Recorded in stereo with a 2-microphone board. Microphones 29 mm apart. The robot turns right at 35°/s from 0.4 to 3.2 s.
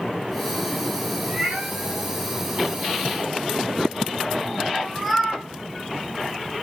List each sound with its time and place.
1.2 s a cat meowing: 65° right (ahead or behind), 3 m; by 5.4 s centre (ahead or behind), 3 m